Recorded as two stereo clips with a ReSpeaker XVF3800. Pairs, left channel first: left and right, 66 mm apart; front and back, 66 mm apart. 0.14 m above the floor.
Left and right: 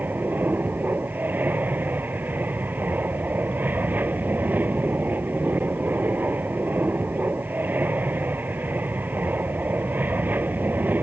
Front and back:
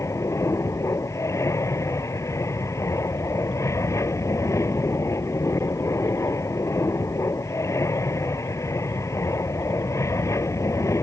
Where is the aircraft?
35° right.